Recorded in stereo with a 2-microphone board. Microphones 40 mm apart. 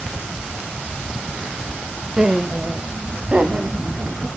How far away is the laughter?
About 0.8 m.